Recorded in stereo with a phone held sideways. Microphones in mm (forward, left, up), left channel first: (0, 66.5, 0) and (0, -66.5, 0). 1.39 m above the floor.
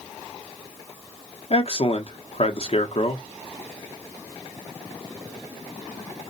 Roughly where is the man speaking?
Left.